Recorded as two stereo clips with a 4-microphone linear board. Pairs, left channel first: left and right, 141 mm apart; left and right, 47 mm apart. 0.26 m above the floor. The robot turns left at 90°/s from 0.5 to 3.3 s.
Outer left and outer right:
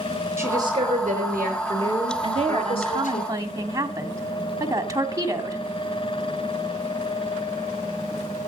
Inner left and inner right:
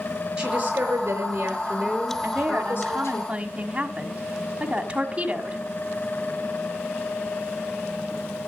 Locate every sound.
0.4 s a woman speaking: 20° right, 5.5 m; by 3.2 s 95° left, 5.5 m
2.2 s a woman speaking: 55° right, 1.8 m; by 5.6 s 150° right, 1.8 m